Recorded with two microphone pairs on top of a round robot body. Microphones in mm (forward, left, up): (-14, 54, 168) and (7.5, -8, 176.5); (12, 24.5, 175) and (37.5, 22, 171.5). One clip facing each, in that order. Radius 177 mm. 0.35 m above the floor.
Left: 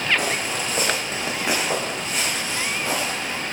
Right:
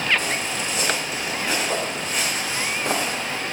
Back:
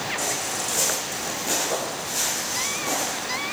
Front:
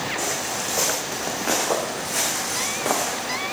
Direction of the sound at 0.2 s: 75° left.